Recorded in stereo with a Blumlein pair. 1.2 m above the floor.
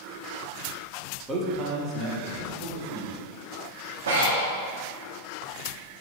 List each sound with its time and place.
1.3 s a man speaking: 15° right, 1.5 m; by 3.1 s 50° right, 3 m
4.1 s breathing: 60° right, 1.8 m